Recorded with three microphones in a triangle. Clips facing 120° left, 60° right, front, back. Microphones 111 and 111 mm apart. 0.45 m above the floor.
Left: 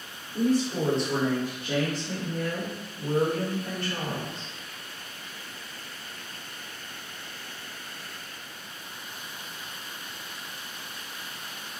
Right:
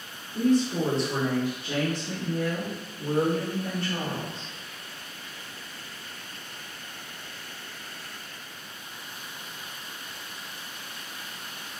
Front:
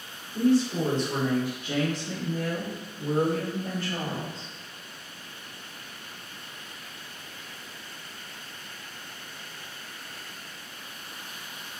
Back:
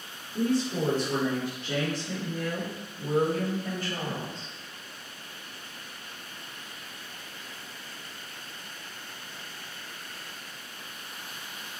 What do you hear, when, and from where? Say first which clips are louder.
0.3 s a woman speaking: right 2 dB, front 4 dB; straight behind, 1.0 m; by 4.5 s 15° right, 1.9 m